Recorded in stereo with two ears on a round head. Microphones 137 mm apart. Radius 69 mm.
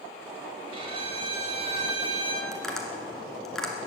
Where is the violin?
40° right (ahead or behind), 2.0 m.